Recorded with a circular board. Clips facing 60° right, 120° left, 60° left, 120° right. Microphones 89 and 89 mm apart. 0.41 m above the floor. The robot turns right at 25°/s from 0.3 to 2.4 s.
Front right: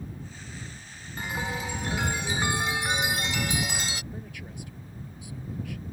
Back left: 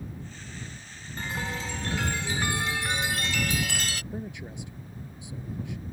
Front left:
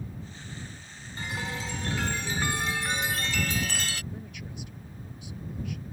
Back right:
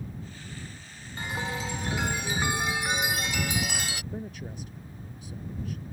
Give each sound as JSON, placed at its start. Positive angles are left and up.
{"t": 1.2, "sound": "a chime", "azimuth_deg": -105}
{"t": 4.1, "sound": "a man speaking", "azimuth_deg": -175}